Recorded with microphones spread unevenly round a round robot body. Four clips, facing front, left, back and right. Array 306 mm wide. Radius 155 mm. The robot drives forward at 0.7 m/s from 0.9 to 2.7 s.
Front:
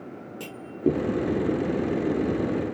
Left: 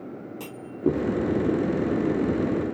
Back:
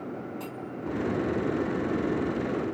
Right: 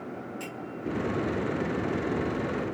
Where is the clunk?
45° left.